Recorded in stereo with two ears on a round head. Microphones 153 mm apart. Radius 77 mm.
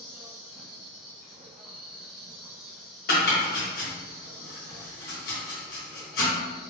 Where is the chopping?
60° left (ahead or behind), 1.7 m.